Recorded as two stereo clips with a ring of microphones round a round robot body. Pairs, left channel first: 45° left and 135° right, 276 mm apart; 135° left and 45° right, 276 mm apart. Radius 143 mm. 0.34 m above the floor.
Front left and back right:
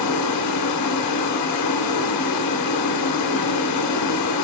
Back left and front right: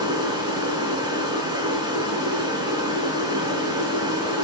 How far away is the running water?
About 0.7 m.